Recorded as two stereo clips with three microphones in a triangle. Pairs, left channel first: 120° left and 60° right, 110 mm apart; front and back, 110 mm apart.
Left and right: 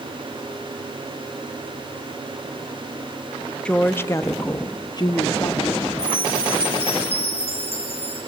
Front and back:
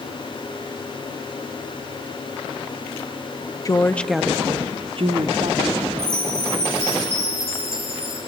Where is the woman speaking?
40° left, 0.8 m; by 6.2 s straight behind, 1.9 m.